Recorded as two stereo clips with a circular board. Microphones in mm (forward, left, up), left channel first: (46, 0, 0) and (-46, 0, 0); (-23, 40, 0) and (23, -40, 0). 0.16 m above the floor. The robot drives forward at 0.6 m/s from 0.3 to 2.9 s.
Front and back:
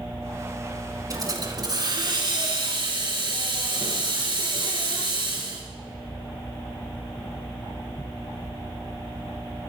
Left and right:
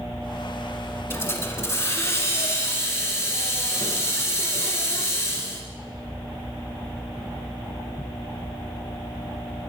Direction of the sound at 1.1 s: 165° left.